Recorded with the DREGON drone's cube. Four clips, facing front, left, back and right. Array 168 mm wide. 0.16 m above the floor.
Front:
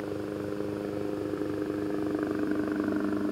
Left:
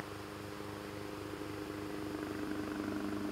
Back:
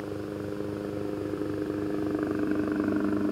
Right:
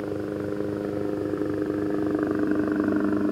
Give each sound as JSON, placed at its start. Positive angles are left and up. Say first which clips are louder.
{"t": 0.0, "sound": "a helicopter", "louder": "right 17 dB, front 1 dB", "azimuth_deg": -85}